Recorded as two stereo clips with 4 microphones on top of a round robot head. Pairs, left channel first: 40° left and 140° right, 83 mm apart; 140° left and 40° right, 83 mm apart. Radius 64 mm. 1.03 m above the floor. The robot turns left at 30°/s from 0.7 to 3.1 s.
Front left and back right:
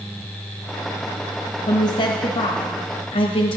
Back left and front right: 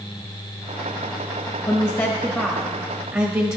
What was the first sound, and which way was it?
A woman speaking, 65° left.